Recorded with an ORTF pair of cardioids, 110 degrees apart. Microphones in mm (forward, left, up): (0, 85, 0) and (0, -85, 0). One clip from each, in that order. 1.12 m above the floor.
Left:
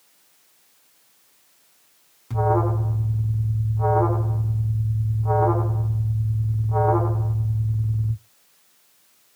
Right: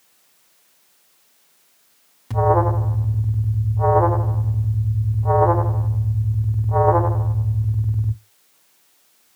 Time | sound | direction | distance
2.3 | an alarm | 30° right | 1.1 m